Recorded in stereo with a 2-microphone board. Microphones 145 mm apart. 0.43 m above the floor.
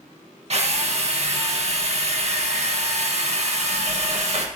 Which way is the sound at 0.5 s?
50° right (ahead or behind).